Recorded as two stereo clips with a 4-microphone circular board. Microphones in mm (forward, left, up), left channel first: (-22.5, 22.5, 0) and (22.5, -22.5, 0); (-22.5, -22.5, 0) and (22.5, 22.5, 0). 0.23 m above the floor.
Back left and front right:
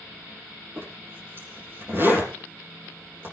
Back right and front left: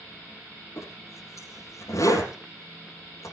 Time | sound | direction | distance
0.8 | a zipper | 100° right | 5 m